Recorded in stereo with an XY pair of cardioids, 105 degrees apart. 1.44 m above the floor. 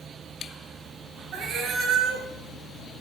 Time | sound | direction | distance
1.3 | a cat meowing | 65° right | 5 m